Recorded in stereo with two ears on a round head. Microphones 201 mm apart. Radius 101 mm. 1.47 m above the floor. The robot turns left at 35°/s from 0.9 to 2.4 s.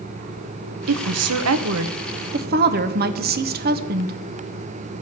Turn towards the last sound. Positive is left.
turn(degrees=-130)